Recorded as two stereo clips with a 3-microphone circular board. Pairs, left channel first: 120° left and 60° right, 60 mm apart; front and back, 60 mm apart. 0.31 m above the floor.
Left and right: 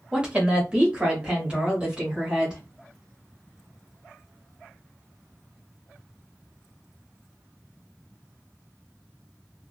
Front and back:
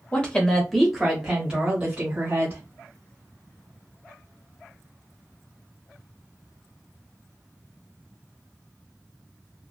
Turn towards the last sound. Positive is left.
turn(degrees=-130)